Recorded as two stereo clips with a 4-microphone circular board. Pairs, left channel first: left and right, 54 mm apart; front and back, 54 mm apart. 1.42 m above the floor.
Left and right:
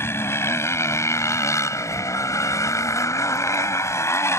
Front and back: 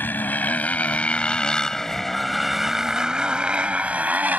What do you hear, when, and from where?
0.0 s a motorcycle: 50° left; by 4.4 s 120° left